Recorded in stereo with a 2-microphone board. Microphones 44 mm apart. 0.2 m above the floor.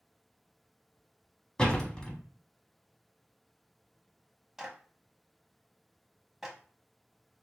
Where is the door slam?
15° left (ahead or behind), 0.8 m.